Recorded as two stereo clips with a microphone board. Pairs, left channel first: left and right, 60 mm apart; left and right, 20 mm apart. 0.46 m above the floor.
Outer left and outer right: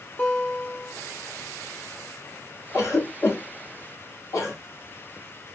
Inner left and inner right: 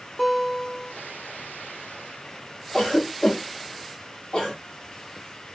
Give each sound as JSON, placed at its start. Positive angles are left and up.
{"t": 0.2, "sound": "a guitar", "side_deg": 25, "distance_m": 1.0}
{"t": 2.7, "sound": "a cough", "side_deg": 50, "distance_m": 1.7}